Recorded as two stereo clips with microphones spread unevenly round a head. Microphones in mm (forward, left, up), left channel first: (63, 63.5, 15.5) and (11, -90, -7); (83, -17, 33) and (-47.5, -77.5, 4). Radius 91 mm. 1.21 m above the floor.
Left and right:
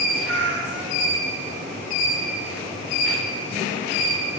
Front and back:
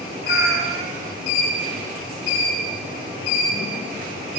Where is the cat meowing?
140° right, 2 m.